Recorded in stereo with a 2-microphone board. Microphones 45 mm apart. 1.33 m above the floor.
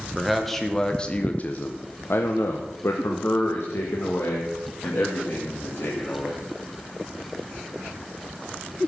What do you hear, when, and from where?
0.1 s a man speaking: centre (ahead or behind), 1.3 m; by 6.5 s 60° left (ahead or behind), 3.5 m